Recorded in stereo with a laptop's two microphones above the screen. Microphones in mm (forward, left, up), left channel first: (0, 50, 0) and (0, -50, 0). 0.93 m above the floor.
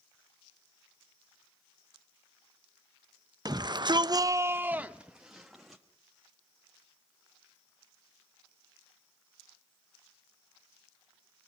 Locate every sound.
3.5 s a shout: 40° right (ahead or behind), 0.6 m; by 5.8 s centre (ahead or behind), 1.4 m